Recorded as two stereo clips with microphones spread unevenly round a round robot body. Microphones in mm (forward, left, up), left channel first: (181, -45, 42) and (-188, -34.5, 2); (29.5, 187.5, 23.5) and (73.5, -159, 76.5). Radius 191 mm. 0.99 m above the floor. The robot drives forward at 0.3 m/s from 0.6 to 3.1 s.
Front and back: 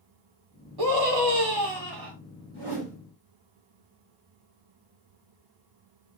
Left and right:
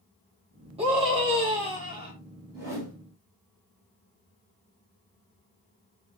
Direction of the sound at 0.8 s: 160° right.